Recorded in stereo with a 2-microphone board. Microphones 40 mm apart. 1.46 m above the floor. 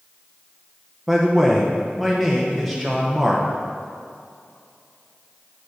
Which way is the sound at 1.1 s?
5° right (ahead or behind).